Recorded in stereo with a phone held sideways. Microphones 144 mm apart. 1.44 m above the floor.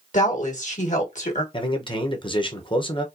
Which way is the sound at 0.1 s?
60° left (ahead or behind).